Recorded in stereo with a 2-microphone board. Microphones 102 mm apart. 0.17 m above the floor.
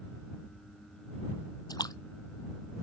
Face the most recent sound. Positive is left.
turn(degrees=35)  # may be behind; listen again after turning